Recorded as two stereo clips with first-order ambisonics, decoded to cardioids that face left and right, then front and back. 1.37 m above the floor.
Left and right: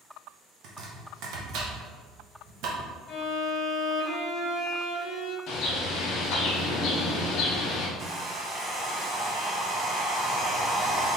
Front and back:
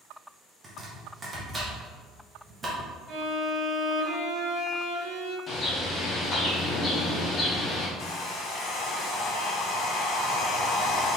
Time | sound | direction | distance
0.6 | chopping | 110° right | 0.9 m
3.1 | a violin | 140° left | 1.3 m
5.5 | a bird | 60° left | 0.8 m
8.0 | a hair dryer | 35° right | 1.2 m